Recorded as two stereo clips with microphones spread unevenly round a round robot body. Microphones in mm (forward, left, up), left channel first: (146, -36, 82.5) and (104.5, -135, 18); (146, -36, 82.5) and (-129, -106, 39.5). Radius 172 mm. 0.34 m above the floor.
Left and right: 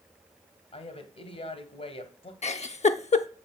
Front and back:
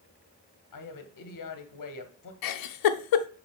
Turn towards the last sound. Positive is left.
turn(degrees=20)